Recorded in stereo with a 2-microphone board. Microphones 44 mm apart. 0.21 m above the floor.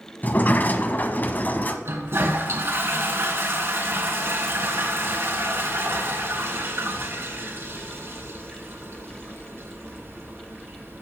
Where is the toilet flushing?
60° right (ahead or behind), 3 m.